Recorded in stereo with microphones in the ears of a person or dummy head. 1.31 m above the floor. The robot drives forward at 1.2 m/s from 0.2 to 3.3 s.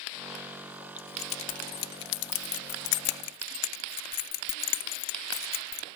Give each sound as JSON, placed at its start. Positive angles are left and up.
{"t": 1.0, "sound": "keys jangling", "side_deg": 35}